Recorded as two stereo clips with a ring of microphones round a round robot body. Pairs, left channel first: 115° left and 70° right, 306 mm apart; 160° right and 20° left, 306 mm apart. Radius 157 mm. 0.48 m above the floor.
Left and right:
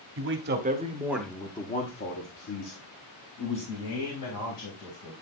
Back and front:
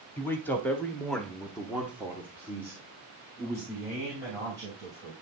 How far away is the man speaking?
About 1.4 m.